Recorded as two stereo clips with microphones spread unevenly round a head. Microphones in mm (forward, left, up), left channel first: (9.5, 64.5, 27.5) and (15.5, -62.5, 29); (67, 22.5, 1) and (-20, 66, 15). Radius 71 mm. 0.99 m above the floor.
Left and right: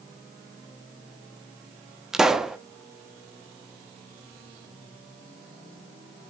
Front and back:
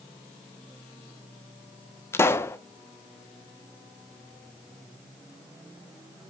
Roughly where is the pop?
Ahead.